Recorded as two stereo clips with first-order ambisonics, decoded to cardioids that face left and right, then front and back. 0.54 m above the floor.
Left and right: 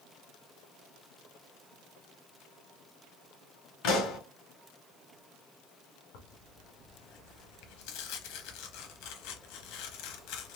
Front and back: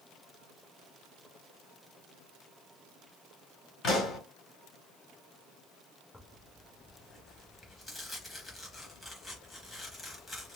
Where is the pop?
60° left, 1.9 m.